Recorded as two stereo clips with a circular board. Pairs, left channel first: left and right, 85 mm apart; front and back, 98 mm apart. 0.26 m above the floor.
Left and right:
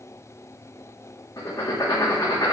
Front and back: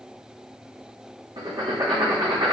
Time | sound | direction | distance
1.4 | writing | 140° left | 5.5 m